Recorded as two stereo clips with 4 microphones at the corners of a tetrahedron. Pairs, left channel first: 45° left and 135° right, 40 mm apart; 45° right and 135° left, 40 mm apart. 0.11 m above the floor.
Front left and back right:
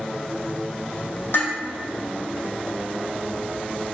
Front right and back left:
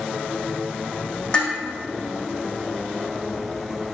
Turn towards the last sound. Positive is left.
turn(degrees=25)